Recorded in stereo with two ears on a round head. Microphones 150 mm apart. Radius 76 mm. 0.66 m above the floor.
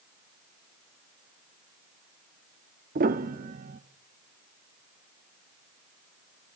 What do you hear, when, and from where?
3.0 s a piano: 50° right (ahead or behind), 0.9 m